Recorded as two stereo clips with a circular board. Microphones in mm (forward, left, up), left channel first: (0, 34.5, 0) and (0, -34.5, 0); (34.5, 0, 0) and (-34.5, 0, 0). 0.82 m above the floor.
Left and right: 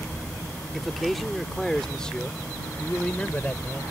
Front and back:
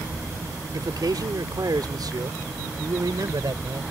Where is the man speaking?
175° right; by 3.8 s 160° left.